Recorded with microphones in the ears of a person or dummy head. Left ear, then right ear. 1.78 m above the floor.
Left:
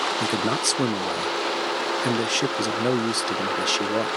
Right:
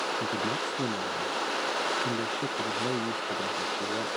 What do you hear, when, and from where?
0.2 s a man speaking: 70° left (ahead or behind)